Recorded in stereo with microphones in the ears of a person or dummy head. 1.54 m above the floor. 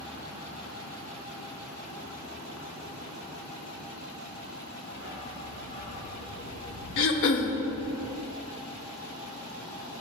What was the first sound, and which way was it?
A dog barking, 15° left (ahead or behind).